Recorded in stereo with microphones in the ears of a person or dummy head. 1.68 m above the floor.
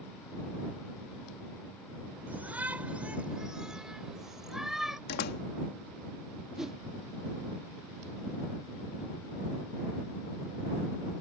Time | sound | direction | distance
2.3 | a shout | 10° right (ahead or behind) | ?
5.1 | a door slam | 50° left (ahead or behind) | ?
6.6 | a whoosh | 5° right (ahead or behind) | ?